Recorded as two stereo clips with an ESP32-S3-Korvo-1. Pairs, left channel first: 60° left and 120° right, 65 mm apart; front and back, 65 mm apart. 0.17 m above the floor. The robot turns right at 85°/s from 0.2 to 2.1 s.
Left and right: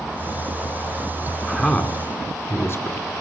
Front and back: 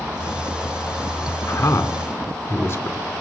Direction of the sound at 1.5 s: 20° right.